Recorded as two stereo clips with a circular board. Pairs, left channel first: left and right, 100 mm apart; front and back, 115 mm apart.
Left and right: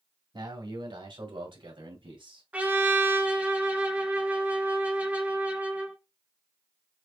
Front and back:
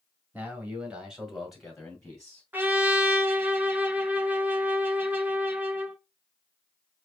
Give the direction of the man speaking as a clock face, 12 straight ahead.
4 o'clock.